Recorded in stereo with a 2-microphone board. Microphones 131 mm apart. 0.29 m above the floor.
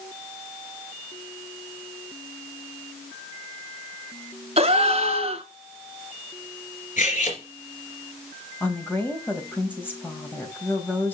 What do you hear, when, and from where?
4.6 s a gasp: 50° right (ahead or behind), 1.2 m
7.0 s cutlery clinking: 75° left (ahead or behind), 3 m
8.6 s a woman speaking: 15° left (ahead or behind), 1.6 m